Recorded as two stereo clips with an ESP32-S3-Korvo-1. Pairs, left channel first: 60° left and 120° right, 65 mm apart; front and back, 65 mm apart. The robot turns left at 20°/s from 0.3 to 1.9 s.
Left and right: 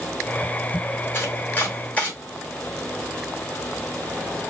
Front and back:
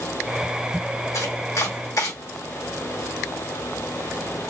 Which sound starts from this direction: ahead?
Chopping, at 1.1 s.